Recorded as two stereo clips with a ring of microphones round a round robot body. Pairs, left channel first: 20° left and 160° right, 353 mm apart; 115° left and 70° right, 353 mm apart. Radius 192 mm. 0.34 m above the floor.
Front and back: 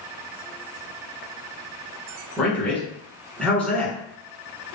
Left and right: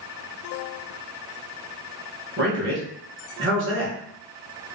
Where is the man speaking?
60° right, 1.3 m.